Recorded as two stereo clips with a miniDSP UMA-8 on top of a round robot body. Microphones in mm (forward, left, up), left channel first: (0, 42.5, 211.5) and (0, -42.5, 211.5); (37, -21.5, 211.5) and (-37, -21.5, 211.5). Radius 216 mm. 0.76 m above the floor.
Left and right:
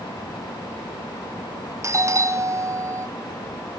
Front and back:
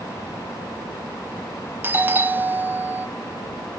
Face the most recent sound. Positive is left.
turn(degrees=-125)